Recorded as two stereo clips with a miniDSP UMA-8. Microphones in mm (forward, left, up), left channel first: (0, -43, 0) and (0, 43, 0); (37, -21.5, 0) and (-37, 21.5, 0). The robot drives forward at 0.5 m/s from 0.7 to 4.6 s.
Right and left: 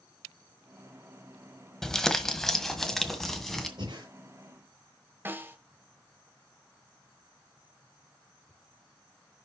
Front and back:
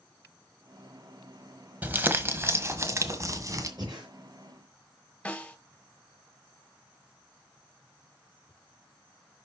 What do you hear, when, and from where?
1.8 s crumpling: 170° right, 1.4 m; by 3.7 s 175° right, 2.0 m
3.8 s breathing: 110° left, 6.5 m
5.2 s a snare drum: 40° left, 1.8 m